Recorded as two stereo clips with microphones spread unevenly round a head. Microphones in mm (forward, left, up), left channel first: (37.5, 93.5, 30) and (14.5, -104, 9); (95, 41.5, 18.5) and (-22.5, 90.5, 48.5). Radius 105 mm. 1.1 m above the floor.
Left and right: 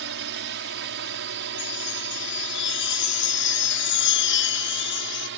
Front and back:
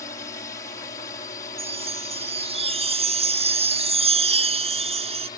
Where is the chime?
120° left.